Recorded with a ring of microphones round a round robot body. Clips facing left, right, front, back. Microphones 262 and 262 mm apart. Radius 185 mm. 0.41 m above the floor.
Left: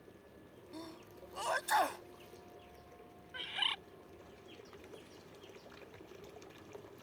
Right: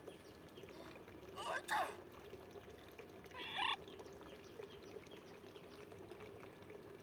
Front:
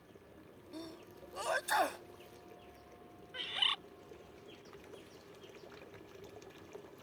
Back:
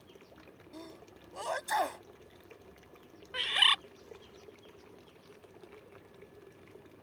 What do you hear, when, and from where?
0.7 s a sneeze: 80° left
3.3 s a bird: 165° left